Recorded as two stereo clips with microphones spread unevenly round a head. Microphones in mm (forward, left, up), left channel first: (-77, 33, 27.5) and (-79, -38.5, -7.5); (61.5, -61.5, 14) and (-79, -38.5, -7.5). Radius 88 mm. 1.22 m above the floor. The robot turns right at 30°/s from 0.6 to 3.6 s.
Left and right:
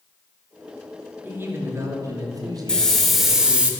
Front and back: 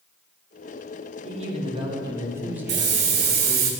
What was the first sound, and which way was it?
A man speaking, 150° right.